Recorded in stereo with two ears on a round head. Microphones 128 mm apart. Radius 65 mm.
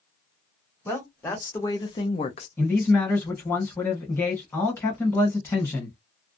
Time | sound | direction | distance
0.8 | a woman speaking | 15° left (ahead or behind) | 1.3 m
2.6 | a man speaking | 15° left (ahead or behind) | 1.3 m